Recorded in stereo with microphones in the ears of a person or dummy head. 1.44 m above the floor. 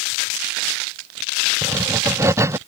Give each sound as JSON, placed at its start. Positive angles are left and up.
{"t": 1.6, "sound": "writing", "side_deg": -20}